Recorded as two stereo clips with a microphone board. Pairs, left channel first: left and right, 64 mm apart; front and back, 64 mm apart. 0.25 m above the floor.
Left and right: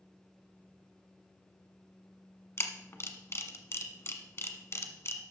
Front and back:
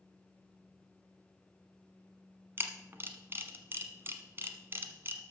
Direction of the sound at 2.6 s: 130° left.